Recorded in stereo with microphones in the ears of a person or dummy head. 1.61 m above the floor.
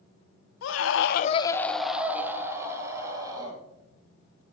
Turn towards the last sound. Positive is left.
turn(degrees=-20)  # may be behind; listen again after turning